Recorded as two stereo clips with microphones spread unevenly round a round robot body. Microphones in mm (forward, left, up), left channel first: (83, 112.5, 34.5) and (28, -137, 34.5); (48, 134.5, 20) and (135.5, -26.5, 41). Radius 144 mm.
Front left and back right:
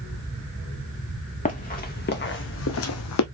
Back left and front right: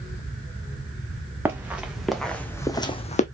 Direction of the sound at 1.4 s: 15° left.